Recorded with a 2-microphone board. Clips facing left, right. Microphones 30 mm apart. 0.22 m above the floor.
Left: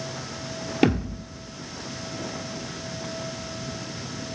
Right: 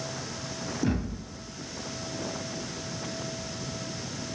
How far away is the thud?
About 1.8 m.